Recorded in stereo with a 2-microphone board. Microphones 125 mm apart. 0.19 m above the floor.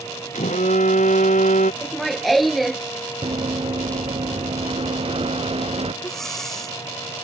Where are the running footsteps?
45° right (ahead or behind); by 5.9 s 55° right (ahead or behind).